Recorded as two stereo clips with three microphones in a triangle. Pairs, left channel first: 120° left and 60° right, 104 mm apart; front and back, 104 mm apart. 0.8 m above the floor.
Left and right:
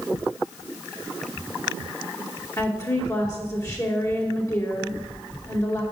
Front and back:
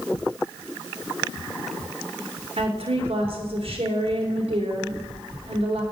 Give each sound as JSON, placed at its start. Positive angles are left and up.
{"t": 2.6, "sound": "a woman speaking", "azimuth_deg": 175, "distance_m": 3.0}